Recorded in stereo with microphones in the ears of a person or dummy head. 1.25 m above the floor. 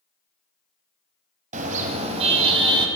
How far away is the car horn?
About 4 m.